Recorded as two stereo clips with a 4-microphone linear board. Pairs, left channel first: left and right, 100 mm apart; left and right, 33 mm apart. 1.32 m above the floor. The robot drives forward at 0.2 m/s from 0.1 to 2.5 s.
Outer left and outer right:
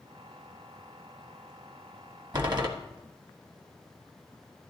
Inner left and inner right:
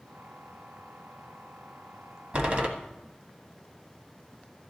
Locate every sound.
2.3 s a door slam: 40° right (ahead or behind), 1.2 m